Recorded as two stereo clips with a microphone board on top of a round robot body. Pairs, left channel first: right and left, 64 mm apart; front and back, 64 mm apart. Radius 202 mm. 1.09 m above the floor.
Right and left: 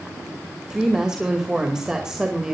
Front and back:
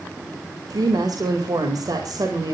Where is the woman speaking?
170° left, 2.5 m.